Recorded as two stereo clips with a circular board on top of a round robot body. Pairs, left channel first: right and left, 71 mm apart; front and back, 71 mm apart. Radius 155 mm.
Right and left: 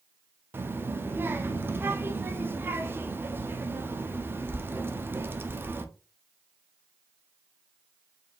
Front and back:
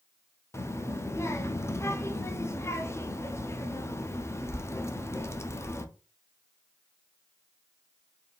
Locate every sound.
0.5 s a child speaking: 40° left, 0.8 m